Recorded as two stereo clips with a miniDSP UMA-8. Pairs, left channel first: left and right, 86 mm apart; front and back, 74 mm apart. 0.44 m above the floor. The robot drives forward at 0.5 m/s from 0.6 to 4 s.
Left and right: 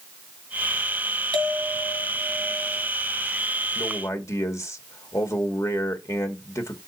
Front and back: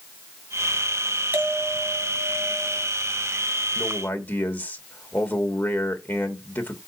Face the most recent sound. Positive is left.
turn(degrees=55)